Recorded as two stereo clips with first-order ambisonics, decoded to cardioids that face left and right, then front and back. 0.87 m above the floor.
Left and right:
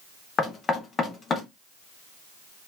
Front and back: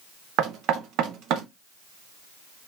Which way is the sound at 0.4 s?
155° left.